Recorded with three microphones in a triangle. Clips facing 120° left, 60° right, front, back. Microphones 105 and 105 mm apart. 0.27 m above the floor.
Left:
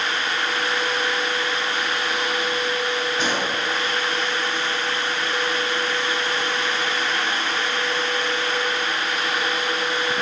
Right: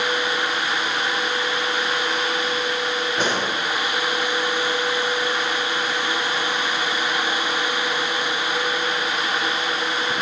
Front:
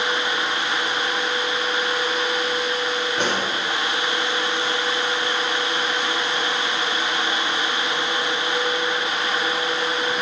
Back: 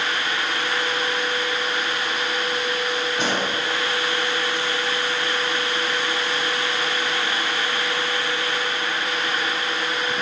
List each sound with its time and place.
3.2 s a pop: 20° right, 4.5 m